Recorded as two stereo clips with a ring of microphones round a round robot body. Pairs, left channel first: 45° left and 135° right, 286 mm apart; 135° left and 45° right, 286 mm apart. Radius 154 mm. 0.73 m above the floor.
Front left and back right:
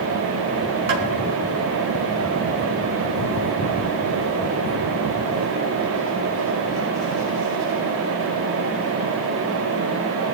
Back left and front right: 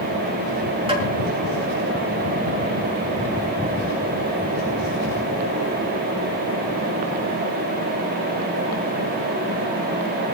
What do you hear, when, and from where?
0.9 s tapping: 115° right, 4 m